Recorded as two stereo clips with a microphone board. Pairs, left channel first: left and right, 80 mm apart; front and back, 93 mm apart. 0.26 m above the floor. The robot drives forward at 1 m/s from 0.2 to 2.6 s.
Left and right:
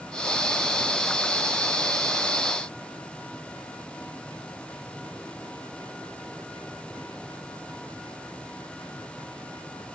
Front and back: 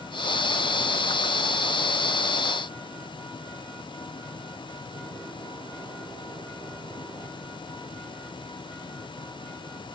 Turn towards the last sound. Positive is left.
No sound to turn to.